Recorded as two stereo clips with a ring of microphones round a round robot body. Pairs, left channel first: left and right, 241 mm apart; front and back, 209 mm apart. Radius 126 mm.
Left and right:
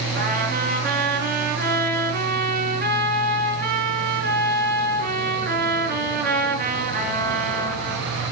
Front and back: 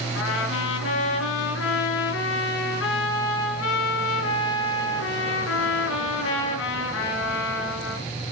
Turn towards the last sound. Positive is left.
turn(degrees=-35)